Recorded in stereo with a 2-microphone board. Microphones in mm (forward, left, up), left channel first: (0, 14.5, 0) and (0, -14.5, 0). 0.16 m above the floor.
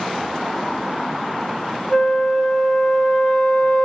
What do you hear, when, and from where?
1.9 s a flute: 20° left (ahead or behind), 0.7 m